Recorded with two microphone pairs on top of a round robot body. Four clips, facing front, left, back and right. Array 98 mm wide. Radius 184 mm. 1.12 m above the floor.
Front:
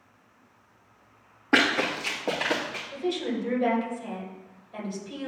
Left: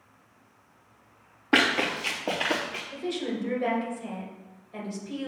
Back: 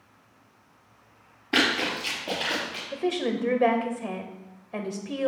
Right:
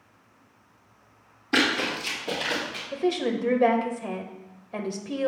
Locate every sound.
1.5 s running footsteps: 55° left, 2.5 m; by 2.8 s 60° left, 3.5 m
2.9 s a woman speaking: 130° right, 1.4 m